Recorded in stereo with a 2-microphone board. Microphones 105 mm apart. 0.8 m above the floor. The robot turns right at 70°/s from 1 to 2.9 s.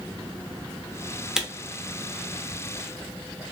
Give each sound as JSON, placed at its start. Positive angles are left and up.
{"t": 1.4, "sound": "a camera shutter", "side_deg": -5, "distance_m": 0.6}